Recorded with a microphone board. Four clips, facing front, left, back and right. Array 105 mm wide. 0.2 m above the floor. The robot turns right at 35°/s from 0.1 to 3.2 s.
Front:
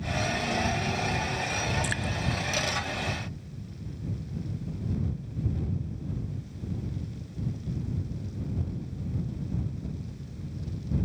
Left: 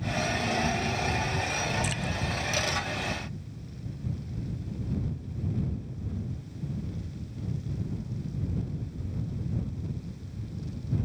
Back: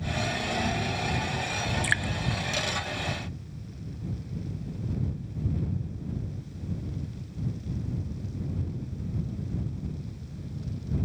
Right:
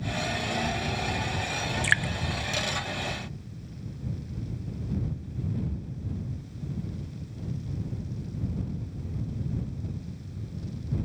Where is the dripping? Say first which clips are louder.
Right 5 dB, back 2 dB; 115° right; by 2.1 s 105° right.